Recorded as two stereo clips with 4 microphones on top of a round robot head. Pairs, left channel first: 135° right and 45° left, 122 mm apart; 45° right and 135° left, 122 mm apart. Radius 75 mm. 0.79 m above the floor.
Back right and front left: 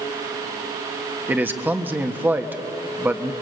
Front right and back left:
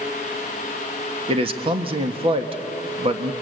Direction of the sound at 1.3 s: 115° left.